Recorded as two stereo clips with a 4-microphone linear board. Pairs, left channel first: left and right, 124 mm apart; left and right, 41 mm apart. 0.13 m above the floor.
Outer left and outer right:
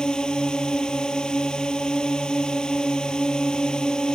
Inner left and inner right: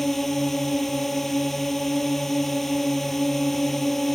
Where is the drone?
5° left (ahead or behind).